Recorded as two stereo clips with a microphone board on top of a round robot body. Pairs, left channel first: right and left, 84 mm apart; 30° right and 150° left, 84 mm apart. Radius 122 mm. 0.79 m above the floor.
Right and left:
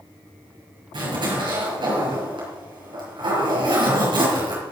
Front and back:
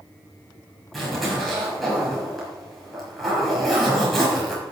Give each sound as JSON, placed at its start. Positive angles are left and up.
{"t": 0.9, "sound": "a zipper", "azimuth_deg": 60, "distance_m": 6.0}